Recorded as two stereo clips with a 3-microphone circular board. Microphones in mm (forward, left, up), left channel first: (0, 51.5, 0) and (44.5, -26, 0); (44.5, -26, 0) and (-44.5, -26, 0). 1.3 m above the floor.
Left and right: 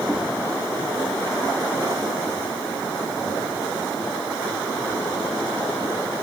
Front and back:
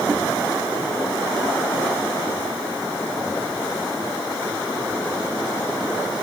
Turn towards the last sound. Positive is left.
No sound to turn to.